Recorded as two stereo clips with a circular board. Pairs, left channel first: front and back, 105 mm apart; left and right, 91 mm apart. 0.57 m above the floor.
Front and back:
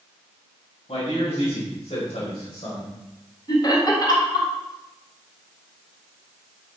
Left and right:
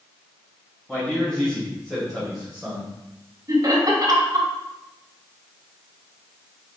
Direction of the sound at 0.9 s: 10° left.